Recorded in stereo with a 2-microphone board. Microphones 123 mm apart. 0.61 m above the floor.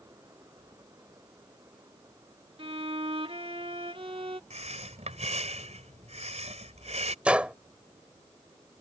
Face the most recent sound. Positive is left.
turn(degrees=-10)  # may be behind; listen again after turning